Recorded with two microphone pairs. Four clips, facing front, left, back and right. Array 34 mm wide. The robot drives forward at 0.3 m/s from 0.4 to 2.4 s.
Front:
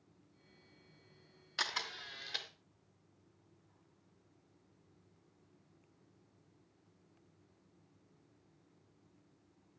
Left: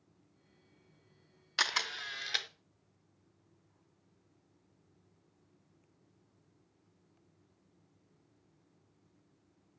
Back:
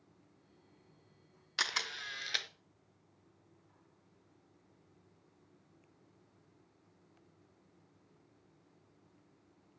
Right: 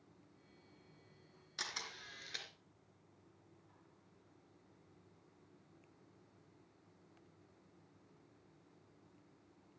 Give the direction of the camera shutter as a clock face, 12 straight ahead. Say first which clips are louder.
Left 13 dB, back 3 dB; 9 o'clock.